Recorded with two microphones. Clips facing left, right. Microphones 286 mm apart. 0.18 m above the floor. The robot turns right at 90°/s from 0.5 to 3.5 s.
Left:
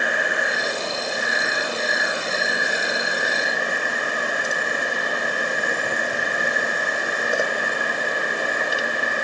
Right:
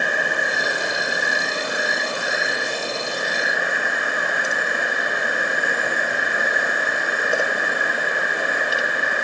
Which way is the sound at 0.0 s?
130° right.